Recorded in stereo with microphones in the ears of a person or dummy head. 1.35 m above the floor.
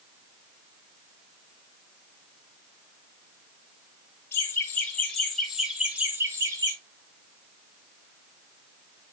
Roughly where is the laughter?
Centre.